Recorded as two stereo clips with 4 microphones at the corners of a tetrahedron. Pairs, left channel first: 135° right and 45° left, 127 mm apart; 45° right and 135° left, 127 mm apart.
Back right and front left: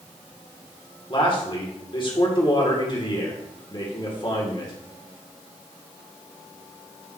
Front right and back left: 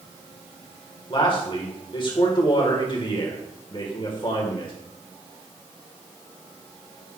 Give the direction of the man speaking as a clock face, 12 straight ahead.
3 o'clock.